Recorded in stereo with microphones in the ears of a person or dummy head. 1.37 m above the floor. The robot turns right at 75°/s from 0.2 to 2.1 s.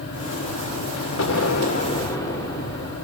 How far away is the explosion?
About 2 m.